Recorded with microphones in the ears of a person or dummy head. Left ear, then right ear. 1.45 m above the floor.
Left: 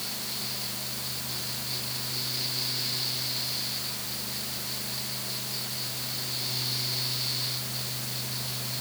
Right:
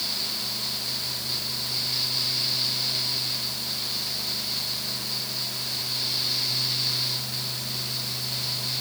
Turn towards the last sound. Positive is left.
No sound to turn to.